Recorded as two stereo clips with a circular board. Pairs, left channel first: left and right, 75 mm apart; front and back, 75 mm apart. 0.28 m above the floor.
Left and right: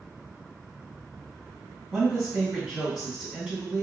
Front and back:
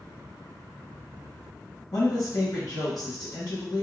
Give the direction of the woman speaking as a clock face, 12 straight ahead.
12 o'clock.